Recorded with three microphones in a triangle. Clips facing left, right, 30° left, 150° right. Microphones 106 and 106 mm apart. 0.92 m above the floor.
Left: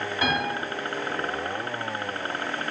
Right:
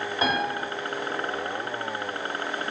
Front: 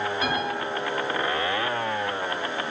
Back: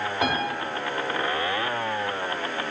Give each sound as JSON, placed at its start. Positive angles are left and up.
{"t": 0.2, "sound": "a piano", "azimuth_deg": -155, "distance_m": 2.5}